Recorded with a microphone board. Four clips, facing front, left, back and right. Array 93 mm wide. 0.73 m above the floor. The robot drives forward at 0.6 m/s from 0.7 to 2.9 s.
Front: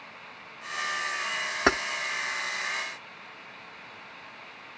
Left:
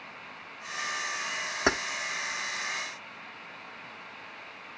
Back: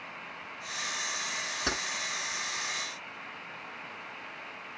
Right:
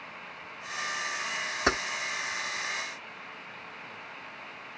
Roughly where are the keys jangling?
Ahead left.